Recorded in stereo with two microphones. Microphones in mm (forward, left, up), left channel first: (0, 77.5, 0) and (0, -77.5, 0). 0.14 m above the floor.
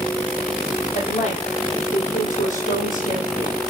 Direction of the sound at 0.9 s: 50° left (ahead or behind).